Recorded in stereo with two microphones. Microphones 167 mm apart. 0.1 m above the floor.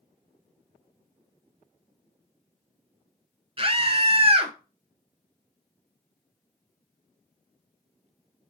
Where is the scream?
30° right (ahead or behind), 1.9 m.